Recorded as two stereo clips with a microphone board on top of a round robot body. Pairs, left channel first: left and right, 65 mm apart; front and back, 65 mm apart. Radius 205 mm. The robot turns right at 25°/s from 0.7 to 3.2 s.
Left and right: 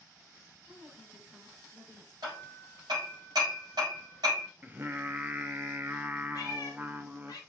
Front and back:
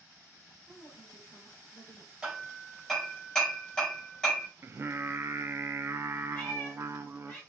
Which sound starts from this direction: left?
A cat meowing, at 6.3 s.